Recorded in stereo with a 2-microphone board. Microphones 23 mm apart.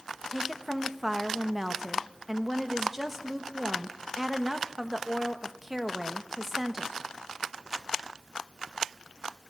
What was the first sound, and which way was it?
A woman speaking, 15° right (ahead or behind).